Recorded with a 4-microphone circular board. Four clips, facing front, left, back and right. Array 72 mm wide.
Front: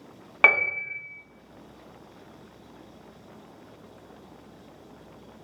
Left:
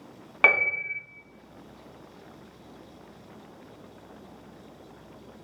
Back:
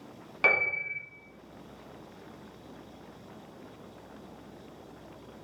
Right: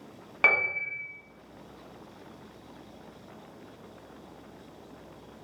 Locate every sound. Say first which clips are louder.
0.4 s a piano: left 3 dB, front 5 dB; 20° left, 0.8 m